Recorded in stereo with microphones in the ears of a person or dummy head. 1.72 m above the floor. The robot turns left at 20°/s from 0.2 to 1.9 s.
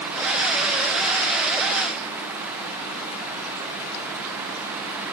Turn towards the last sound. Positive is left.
No sound to turn to.